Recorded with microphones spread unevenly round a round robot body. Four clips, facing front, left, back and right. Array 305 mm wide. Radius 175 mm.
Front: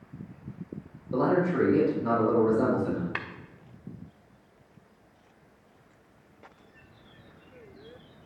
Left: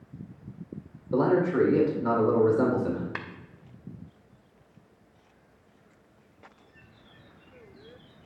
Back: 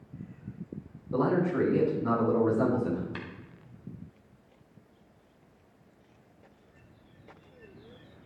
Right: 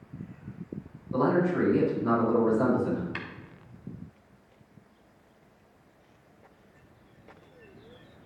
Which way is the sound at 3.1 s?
25° left.